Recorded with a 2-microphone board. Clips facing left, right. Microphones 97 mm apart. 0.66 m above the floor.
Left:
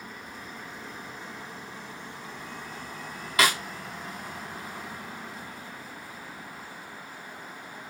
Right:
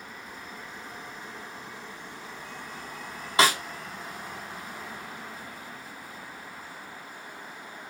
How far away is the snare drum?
About 1.0 m.